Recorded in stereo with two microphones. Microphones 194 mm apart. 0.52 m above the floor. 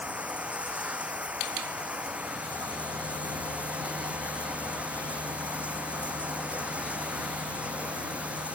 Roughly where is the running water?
Centre.